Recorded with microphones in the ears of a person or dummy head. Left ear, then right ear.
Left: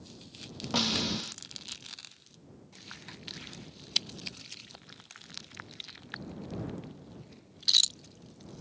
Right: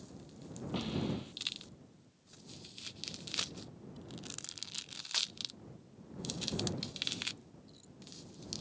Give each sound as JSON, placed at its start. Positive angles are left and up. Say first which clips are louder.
{"t": 0.7, "sound": "a snare drum", "louder": "left 11 dB", "side_deg": 65}